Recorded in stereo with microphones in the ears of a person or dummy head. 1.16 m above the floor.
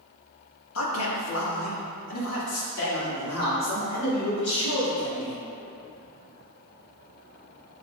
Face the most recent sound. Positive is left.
turn(degrees=85)